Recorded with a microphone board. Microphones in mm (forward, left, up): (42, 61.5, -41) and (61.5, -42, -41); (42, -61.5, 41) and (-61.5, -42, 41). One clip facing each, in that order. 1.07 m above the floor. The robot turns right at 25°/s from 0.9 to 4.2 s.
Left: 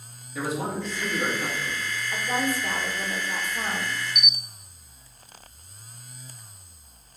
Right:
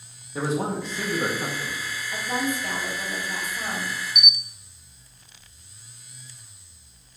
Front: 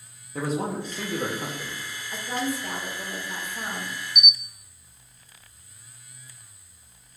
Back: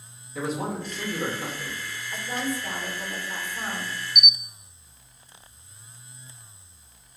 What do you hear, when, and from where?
0.3 s a man speaking: 30° right, 0.9 m; by 1.8 s 10° right, 0.9 m
2.1 s a woman speaking: 40° left, 1.5 m; by 3.9 s 85° left, 1.5 m
4.2 s a camera shutter: 105° right, 0.5 m